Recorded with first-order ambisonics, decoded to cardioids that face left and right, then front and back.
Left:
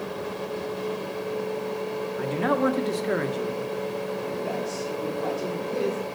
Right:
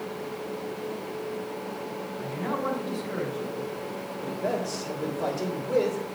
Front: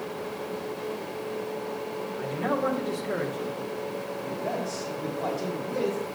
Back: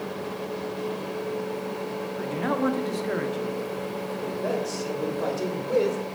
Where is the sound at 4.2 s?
150° right, 2.5 m.